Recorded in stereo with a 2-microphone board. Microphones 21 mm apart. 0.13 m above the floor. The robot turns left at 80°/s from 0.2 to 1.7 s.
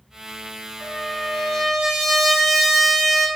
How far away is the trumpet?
About 1.0 m.